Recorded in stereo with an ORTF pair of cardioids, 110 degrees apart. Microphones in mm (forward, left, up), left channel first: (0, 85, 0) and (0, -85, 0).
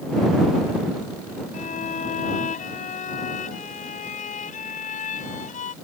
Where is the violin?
45° left.